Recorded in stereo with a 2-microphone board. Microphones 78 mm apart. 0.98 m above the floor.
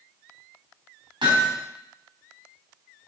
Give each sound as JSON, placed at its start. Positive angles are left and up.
{"t": 1.2, "sound": "hammering", "side_deg": -85, "distance_m": 3.5}